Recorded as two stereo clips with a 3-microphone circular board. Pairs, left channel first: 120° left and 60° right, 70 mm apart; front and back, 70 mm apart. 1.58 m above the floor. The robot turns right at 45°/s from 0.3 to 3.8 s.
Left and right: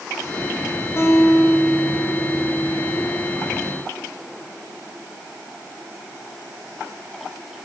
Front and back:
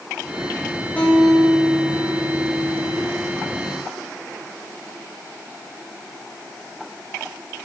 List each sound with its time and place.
1.0 s a guitar: 70° left, 9.5 m; by 3.1 s 165° left, 9.5 m